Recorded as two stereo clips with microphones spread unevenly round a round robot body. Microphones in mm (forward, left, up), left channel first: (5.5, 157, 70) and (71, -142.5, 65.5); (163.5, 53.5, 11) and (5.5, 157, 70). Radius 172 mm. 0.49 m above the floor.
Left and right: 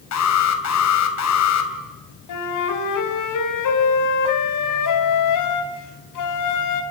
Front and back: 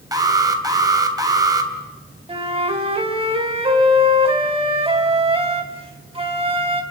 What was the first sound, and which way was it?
An alarm, 70° left.